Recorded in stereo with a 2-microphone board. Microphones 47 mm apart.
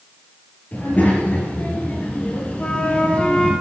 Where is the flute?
25° left (ahead or behind), 2.5 m.